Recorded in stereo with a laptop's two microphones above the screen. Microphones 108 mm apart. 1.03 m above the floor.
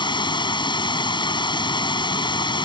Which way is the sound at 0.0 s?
45° left (ahead or behind).